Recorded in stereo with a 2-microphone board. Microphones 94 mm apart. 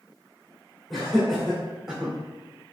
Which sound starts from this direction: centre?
Laughter, at 0.9 s.